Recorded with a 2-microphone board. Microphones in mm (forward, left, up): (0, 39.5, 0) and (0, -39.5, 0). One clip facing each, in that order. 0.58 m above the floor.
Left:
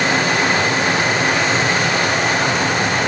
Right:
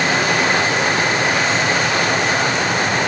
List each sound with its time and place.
Only background noise.